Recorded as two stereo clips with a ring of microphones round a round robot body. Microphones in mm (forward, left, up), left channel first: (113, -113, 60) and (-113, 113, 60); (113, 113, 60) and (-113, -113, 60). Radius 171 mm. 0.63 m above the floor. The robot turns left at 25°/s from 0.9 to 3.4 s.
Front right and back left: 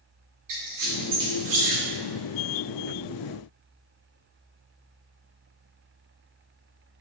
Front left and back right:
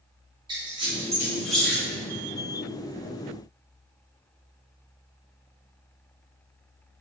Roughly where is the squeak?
Behind left.